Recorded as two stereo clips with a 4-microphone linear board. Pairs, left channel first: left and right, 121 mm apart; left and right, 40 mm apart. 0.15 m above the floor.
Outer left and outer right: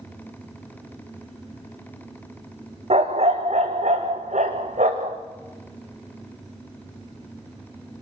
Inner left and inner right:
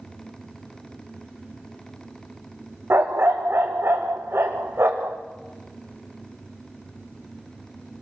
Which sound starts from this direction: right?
A dog barking, at 2.9 s.